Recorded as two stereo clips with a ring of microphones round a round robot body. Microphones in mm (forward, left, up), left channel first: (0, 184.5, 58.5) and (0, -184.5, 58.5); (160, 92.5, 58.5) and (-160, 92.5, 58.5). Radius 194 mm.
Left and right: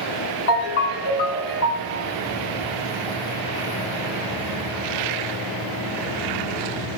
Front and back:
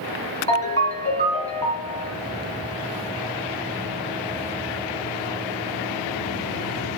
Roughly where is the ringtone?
Left.